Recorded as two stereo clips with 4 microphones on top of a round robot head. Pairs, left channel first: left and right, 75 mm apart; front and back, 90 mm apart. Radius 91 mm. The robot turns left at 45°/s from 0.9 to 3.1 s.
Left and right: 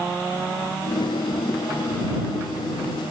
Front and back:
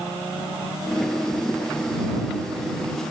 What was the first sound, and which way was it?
Only background noise.